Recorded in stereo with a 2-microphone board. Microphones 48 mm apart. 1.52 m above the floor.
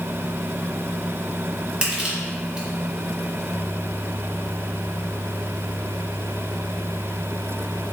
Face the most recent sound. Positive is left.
turn(degrees=-25)  # may be behind; listen again after turning